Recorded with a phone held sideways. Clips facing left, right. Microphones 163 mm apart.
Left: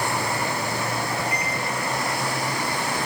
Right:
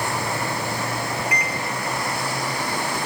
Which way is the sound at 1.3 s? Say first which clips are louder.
Right 1 dB; 80° right.